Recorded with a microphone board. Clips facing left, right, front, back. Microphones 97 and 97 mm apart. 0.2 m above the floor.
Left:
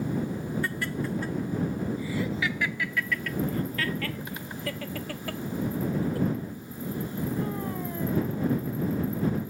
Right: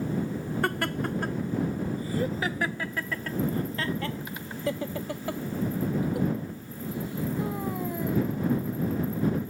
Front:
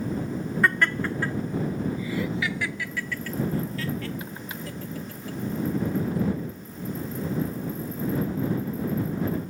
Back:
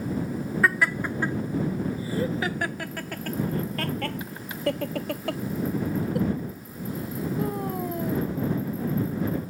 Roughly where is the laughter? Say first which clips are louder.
Right 3 dB, even; right.